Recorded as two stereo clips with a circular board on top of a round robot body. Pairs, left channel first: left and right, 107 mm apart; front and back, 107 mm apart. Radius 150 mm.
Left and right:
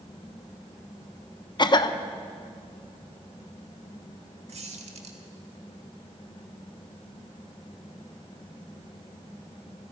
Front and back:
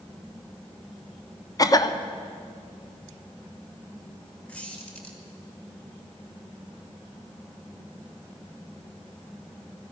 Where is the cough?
50° left, 1.1 m.